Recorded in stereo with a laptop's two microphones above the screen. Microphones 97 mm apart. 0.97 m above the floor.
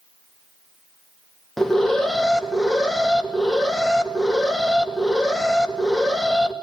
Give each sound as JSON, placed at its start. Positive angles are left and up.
{"t": 1.6, "sound": "an alarm", "side_deg": 5, "distance_m": 2.5}